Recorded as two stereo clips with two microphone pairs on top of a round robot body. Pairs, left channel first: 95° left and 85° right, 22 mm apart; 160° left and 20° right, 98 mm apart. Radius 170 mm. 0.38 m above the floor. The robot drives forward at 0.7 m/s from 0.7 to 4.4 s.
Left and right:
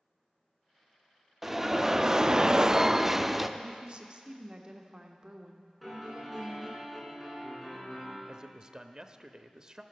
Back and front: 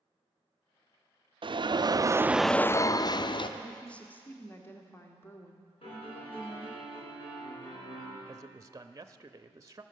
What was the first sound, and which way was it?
An alarm, straight ahead.